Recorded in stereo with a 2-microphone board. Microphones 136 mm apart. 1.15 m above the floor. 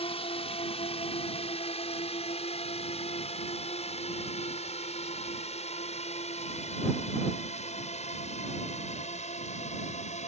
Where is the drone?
50° left (ahead or behind); by 10.3 s 60° left (ahead or behind).